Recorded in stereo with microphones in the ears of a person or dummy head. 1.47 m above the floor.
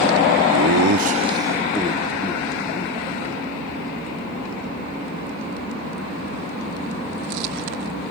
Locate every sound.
0.5 s laughter: 85° right, 0.7 m; by 5.4 s 25° left (ahead or behind), 4 m